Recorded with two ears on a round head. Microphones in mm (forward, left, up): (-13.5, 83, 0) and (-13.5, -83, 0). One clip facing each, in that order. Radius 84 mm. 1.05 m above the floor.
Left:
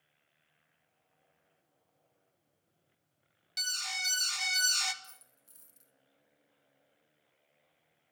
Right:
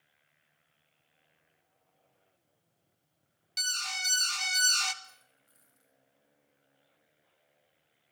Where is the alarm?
5° left (ahead or behind), 1.7 m.